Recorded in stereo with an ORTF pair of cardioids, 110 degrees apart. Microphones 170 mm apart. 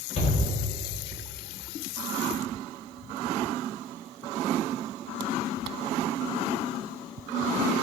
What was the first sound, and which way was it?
A shout, 45° left.